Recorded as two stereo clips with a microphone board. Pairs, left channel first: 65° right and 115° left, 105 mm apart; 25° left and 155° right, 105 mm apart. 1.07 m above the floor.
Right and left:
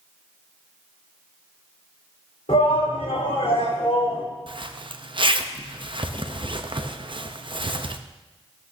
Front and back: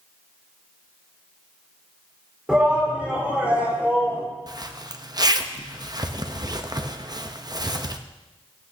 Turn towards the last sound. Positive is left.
turn(degrees=150)